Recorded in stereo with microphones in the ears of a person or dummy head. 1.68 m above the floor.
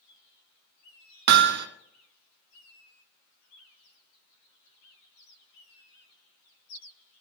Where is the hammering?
60° right (ahead or behind), 0.9 m.